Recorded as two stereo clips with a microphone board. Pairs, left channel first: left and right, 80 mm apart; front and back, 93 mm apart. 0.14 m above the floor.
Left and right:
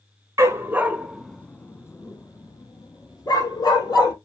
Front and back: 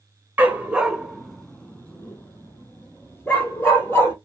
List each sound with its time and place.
0.4 s a dog barking: 115° right, 0.6 m; by 4.2 s 65° left, 1.7 m